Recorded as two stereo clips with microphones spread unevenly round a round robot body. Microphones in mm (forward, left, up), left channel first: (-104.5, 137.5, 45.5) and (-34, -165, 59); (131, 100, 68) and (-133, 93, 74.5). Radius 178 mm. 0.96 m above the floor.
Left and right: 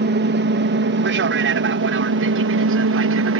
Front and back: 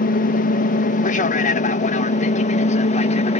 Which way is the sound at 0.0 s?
35° right.